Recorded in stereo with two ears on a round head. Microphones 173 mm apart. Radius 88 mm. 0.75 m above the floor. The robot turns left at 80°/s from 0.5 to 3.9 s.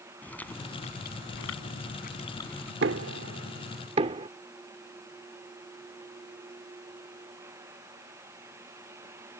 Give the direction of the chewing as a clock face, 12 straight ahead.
6 o'clock.